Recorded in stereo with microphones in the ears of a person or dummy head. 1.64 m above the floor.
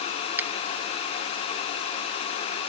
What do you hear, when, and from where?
0.4 s a finger snap: 5° right (ahead or behind)